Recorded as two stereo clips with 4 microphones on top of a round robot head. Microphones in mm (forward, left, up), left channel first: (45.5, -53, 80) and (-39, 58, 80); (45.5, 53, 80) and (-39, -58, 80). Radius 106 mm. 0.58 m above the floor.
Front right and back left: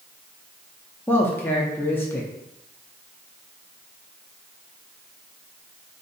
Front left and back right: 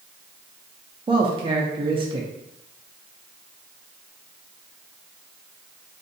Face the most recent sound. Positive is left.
turn(degrees=-115)